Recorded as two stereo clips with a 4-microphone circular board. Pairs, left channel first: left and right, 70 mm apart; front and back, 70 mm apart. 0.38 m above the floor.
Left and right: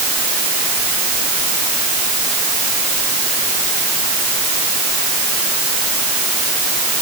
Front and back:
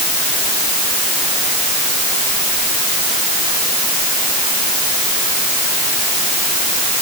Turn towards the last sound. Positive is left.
No sound to turn to.